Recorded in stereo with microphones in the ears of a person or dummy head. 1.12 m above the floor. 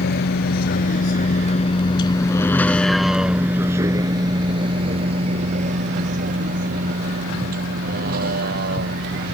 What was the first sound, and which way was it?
A vehicle, 65° left (ahead or behind).